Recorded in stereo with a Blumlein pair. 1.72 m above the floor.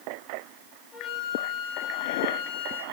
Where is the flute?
25° left, 3.5 m.